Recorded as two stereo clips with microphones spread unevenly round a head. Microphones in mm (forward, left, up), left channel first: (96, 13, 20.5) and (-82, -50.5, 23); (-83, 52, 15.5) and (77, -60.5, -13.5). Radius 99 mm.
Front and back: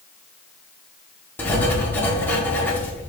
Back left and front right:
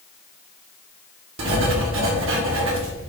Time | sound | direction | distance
1.4 | writing | 60° right | 1.7 m